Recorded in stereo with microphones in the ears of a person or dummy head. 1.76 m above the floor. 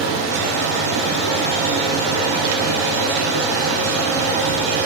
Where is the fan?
50° right (ahead or behind), 1.4 m.